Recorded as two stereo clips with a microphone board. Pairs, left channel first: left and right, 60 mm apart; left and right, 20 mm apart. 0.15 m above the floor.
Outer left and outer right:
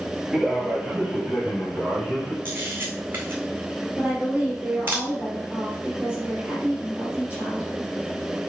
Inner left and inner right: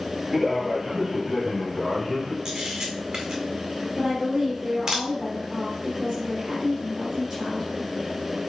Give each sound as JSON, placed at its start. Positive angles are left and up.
{"t": 0.3, "sound": "a man speaking", "side_deg": -5, "distance_m": 3.5}
{"t": 2.5, "sound": "a camera shutter", "side_deg": -30, "distance_m": 2.0}
{"t": 4.0, "sound": "a woman speaking", "side_deg": -20, "distance_m": 3.0}